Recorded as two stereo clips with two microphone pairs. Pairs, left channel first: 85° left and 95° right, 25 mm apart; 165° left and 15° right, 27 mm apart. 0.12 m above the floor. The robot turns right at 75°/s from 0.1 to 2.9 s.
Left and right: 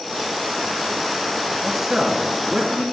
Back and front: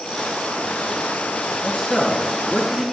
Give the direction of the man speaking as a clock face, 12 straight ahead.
6 o'clock.